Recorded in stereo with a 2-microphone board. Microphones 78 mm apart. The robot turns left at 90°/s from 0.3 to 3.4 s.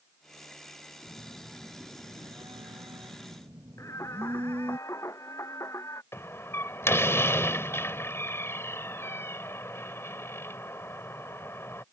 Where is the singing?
40° left (ahead or behind).